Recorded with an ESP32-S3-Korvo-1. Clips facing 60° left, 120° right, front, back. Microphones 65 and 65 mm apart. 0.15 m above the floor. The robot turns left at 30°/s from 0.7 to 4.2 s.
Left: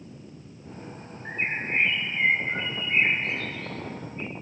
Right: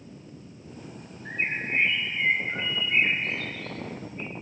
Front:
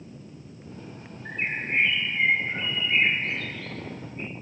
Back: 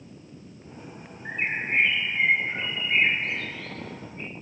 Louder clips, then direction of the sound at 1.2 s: Even, back 1 dB; 115° left.